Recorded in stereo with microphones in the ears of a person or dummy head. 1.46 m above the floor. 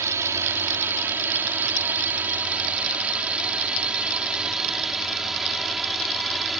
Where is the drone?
15° right (ahead or behind); by 6.6 s centre (ahead or behind).